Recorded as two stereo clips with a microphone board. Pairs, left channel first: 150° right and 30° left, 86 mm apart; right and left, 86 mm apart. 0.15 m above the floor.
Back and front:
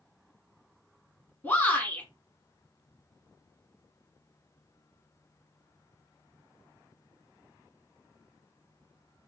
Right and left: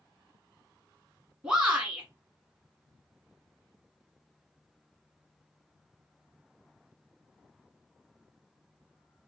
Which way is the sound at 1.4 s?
165° left.